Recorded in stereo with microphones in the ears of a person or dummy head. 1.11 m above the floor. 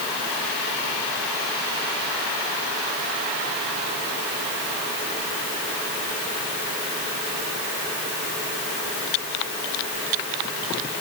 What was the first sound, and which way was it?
Only background noise.